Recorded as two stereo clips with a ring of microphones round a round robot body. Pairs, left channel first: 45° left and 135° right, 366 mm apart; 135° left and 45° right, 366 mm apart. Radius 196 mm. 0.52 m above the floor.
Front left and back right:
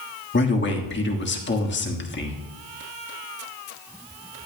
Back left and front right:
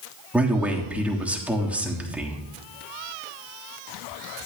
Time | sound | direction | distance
0.3 | a man speaking | 40° left | 1.4 m